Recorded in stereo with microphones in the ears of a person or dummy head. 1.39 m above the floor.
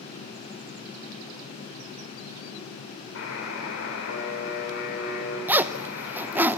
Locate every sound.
3.1 s a buzzer: 85° left, 6.5 m
5.5 s a zipper: 15° right (ahead or behind), 0.8 m